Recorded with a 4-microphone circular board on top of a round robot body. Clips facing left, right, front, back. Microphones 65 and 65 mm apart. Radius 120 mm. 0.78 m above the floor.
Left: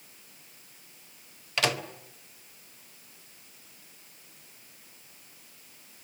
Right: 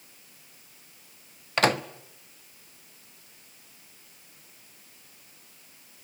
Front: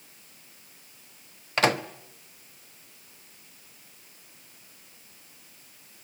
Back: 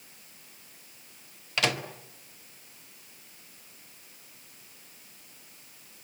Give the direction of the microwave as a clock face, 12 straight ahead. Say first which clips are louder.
Right 5 dB, front 5 dB; 2 o'clock.